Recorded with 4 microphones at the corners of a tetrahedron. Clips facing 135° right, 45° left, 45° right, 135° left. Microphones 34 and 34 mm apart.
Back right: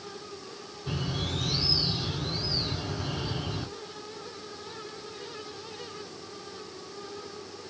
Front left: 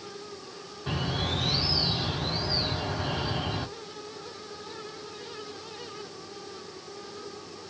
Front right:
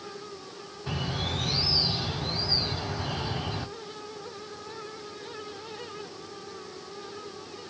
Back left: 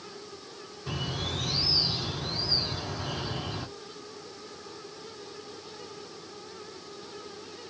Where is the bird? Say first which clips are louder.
Front left 3 dB, front right 2 dB; 30° left, 2 m.